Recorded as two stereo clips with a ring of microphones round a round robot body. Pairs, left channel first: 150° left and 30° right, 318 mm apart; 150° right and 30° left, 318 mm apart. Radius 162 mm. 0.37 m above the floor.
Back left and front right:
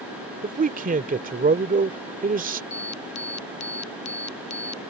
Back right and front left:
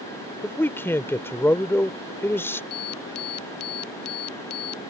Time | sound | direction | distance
0.4 | a man speaking | 70° right | ?
2.7 | an alarm | 165° left | ?